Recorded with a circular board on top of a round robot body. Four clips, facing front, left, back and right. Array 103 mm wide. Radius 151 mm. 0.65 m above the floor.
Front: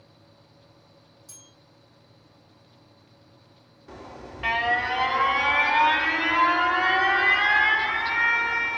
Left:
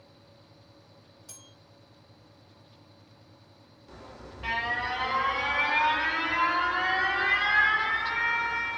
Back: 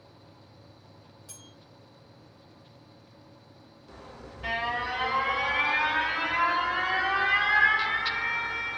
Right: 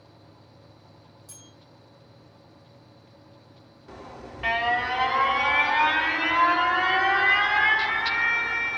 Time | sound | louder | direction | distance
1.3 | a bell | right 3 dB, back 3 dB | 115° left | 5.5 m
3.9 | an alarm | right 5 dB, front 5 dB | 40° right | 3 m